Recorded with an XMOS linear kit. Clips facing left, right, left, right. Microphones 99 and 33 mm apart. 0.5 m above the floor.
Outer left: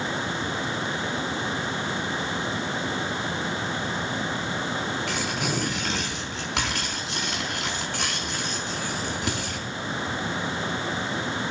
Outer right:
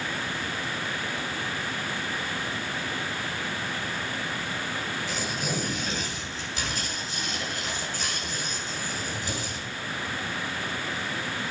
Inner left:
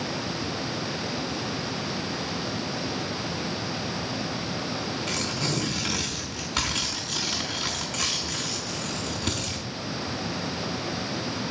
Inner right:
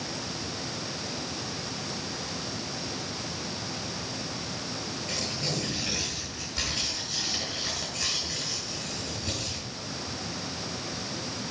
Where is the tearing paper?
75° left (ahead or behind), 4 m.